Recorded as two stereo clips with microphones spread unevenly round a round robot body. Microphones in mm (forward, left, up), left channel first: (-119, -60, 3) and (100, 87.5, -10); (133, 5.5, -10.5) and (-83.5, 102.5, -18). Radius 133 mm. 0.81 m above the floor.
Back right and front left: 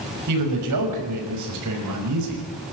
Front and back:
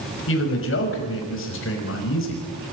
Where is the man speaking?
10° left, 5.5 m.